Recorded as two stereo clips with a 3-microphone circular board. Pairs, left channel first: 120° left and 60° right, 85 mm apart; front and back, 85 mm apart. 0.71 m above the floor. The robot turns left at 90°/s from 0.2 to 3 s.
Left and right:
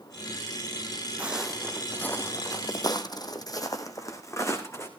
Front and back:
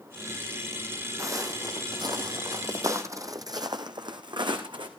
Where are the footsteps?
130° right, 1.4 m; by 4.9 s 175° left, 2 m.